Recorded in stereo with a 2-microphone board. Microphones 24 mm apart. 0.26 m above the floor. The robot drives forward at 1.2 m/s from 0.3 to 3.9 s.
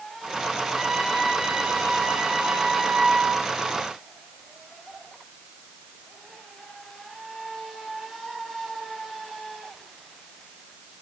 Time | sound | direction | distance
0.7 | a trumpet | 15° right (ahead or behind) | 10 m